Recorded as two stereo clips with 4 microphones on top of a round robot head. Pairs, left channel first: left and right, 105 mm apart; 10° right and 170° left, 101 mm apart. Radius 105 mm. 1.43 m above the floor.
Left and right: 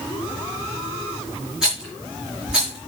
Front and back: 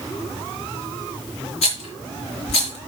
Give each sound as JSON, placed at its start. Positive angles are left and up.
{"t": 1.6, "sound": "a rattle", "azimuth_deg": -5, "distance_m": 4.0}